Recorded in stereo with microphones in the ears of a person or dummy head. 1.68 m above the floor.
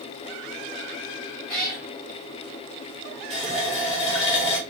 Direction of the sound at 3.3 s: 10° left (ahead or behind).